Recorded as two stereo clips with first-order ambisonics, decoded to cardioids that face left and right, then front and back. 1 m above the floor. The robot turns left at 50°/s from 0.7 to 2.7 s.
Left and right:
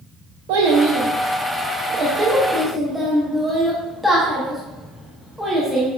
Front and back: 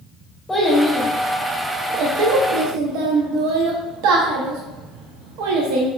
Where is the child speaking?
80° right, 0.7 m; by 5.9 s straight behind, 0.7 m.